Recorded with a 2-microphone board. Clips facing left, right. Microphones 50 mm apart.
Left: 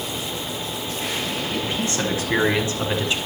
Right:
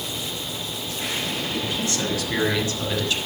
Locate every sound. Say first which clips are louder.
1.5 s a man speaking: left 3 dB; 35° left (ahead or behind), 9 m; by 3.2 s 25° left (ahead or behind), 7.5 m